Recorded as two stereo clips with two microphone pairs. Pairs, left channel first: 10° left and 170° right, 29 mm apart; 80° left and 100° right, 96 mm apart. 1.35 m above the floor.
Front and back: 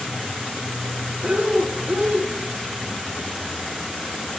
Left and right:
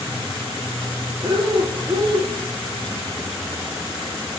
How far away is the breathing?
About 1.0 m.